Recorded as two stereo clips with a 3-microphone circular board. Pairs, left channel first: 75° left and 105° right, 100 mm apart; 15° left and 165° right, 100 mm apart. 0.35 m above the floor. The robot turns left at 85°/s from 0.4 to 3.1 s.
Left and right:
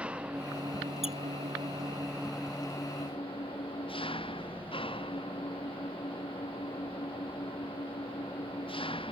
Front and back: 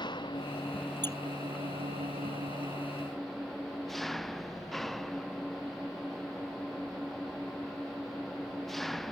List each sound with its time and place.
0.0 s an engine running: 25° right; by 9.1 s 105° left
1.0 s a squeak: 85° left; by 1.2 s 75° left